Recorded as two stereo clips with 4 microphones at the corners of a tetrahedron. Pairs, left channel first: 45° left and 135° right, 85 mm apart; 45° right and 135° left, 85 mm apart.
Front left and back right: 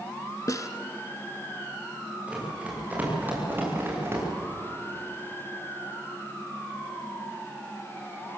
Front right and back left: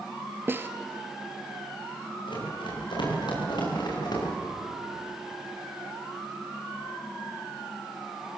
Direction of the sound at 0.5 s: 80° left.